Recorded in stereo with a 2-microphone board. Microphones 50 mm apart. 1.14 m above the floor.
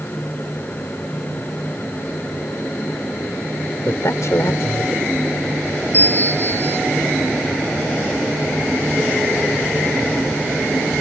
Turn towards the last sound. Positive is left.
turn(degrees=40)  # may be behind; listen again after turning